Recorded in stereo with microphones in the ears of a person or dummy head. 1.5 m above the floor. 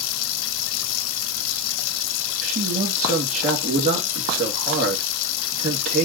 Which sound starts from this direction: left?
Running water, at 0.0 s.